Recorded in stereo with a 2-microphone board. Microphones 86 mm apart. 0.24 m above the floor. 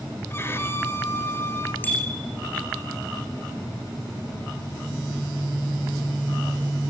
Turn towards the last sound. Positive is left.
turn(degrees=20)  # may be behind; listen again after turning